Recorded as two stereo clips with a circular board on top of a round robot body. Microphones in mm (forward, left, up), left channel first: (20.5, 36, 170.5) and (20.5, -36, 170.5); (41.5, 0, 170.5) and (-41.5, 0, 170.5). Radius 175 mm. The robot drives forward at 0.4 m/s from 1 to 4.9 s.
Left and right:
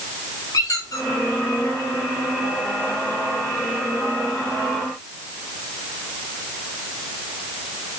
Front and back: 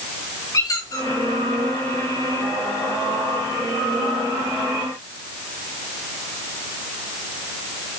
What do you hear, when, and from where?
0.5 s a squeak: 50° left, 3.5 m